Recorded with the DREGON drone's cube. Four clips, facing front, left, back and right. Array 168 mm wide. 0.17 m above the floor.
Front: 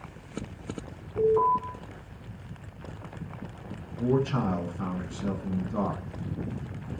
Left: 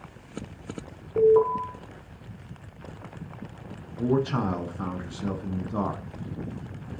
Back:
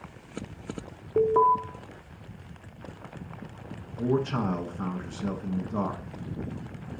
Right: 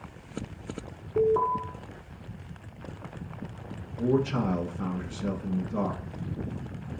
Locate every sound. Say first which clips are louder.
1.2 s an alarm: left 5 dB, back 2 dB; 165° left, 1.8 m
3.9 s a man speaking: left 1 dB, front 1 dB; 110° left, 1.1 m